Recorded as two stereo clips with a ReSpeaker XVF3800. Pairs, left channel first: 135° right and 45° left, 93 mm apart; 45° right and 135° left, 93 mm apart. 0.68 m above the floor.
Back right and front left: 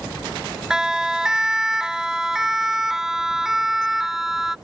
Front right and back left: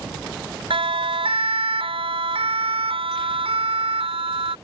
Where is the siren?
130° left.